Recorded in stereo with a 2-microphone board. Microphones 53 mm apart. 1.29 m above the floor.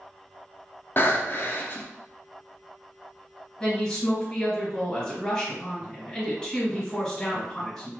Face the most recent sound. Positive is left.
turn(degrees=20)  # may be behind; listen again after turning